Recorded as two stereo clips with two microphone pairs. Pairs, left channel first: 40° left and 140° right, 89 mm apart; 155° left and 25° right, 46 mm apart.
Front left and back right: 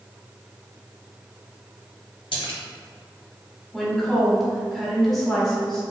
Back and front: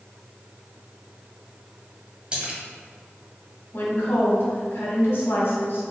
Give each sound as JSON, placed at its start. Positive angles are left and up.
{"t": 2.3, "sound": "a splash", "azimuth_deg": 40, "distance_m": 1.1}
{"t": 3.7, "sound": "a woman speaking", "azimuth_deg": 125, "distance_m": 1.6}